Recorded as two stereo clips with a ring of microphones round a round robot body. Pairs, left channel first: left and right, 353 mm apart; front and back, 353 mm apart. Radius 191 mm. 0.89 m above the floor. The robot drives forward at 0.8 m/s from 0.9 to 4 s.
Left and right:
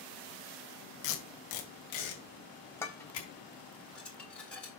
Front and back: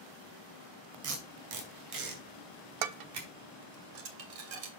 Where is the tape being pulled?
125° left, 2 m; by 3.3 s 150° left, 3.5 m.